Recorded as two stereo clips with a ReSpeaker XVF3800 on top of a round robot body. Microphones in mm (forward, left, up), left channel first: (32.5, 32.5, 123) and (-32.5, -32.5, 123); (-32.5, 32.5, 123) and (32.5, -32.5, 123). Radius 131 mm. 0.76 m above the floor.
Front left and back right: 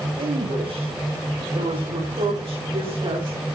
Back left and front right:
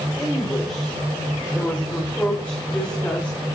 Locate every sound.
0.2 s a woman speaking: 145° right, 4.5 m; by 3.5 s 155° right, 3 m